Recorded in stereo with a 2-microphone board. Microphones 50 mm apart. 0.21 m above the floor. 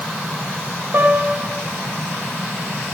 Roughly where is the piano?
Right.